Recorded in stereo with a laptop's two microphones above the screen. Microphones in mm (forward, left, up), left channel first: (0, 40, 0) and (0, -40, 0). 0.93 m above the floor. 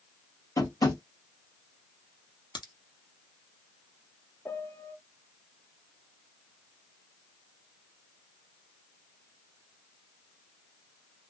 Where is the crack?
80° left, 1.0 m.